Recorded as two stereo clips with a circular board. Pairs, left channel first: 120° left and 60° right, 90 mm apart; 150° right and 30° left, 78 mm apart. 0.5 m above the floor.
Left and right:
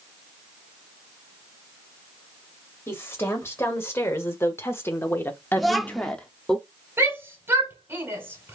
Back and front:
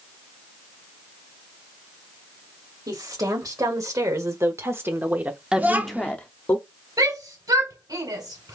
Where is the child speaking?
35° left, 0.7 m.